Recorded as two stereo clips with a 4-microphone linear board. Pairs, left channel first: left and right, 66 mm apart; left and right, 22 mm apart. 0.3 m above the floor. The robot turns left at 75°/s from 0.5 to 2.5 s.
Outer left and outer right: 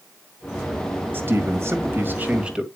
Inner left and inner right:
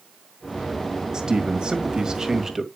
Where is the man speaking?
55° right, 1.6 m; by 2.7 s 155° right, 1.6 m.